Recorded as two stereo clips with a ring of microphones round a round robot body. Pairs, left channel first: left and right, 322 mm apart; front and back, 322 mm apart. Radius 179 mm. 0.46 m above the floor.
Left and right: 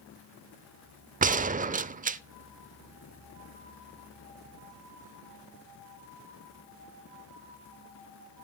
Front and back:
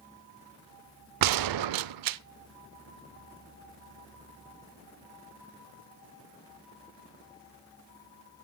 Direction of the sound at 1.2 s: 155° right.